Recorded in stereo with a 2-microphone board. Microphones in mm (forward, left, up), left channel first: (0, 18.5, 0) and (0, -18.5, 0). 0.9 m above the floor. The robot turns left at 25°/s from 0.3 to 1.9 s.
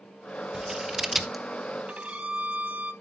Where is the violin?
40° right (ahead or behind), 1.8 m.